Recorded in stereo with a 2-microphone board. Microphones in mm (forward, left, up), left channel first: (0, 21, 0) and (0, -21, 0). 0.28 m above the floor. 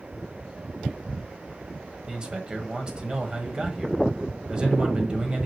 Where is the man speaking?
20° right (ahead or behind), 1.6 m.